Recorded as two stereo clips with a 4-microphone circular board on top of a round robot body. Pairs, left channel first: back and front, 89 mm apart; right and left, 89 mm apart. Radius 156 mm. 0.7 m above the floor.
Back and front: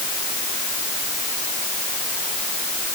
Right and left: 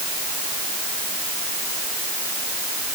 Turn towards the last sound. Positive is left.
No sound to turn to.